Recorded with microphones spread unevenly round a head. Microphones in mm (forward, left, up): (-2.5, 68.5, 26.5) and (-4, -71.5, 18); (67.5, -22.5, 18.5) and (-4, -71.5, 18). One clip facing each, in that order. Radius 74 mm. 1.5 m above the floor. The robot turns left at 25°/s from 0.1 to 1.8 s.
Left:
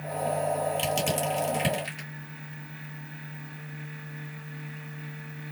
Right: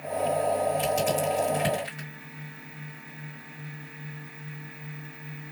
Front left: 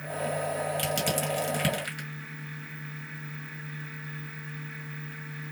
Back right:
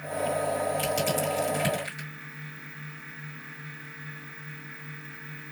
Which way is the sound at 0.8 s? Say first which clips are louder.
Right 3 dB, back right 2 dB; 40° left.